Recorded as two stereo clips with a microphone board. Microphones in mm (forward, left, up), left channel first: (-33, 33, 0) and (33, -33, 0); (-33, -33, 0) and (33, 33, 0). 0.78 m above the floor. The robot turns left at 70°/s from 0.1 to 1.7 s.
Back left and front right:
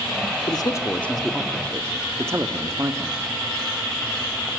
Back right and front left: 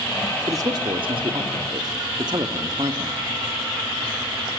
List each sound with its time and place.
0.5 s a man speaking: 100° left, 1.5 m; by 3.2 s 15° left, 1.5 m